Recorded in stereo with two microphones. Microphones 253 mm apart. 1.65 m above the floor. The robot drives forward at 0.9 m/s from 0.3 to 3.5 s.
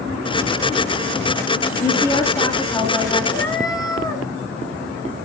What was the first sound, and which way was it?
A woman speaking, 10° left (ahead or behind).